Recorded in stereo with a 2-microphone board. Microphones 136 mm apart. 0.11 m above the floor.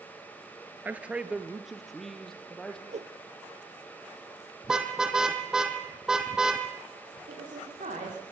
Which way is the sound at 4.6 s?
5° right (ahead or behind).